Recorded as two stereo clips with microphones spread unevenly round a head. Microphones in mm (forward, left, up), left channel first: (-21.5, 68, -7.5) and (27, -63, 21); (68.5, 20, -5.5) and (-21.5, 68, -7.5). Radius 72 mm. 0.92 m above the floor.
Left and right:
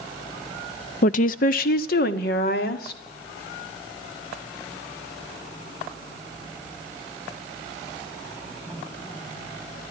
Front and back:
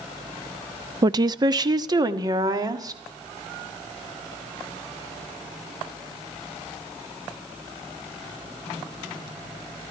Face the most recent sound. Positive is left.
turn(degrees=100)